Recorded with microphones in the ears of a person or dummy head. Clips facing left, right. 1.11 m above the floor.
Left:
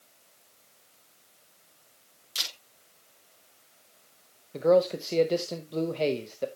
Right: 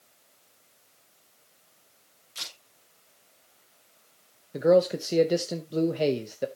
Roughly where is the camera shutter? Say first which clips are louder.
Left 2 dB; left.